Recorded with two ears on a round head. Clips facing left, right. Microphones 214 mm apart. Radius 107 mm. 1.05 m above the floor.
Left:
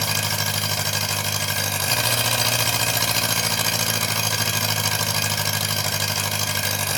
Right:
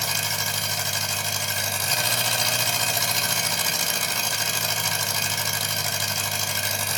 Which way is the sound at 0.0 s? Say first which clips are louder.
Left 4 dB; 55° left (ahead or behind).